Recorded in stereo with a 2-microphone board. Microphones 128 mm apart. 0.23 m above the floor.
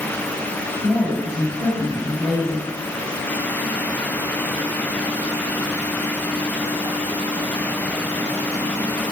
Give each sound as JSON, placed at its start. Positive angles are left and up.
{"t": 0.8, "sound": "a woman speaking", "side_deg": -10, "distance_m": 4.0}